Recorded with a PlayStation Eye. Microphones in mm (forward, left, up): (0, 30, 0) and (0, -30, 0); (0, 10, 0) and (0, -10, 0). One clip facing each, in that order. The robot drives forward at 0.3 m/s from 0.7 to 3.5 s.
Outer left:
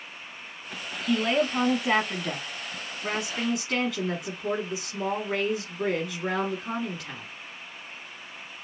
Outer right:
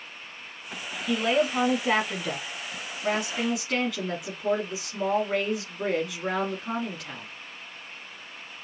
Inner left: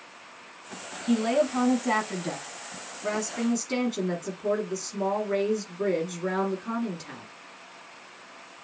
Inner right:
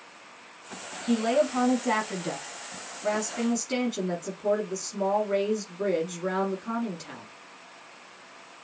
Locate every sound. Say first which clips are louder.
1.1 s a woman speaking: even, even; centre (ahead or behind), 1.0 m